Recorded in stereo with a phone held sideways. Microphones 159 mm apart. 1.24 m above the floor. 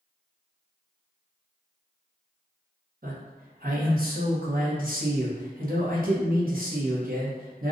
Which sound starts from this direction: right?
A man speaking, at 3.0 s.